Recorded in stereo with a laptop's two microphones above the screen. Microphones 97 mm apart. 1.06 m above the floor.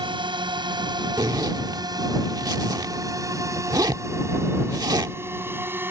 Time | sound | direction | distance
0.0 | a drone | 55° right (ahead or behind) | ?
1.2 | a zipper | 45° right (ahead or behind) | ?